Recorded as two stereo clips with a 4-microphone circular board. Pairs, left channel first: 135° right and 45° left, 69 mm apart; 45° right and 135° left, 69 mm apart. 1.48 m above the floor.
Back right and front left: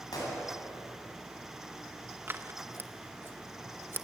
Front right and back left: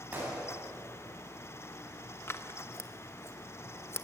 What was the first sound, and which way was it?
A gunshot, 160° right.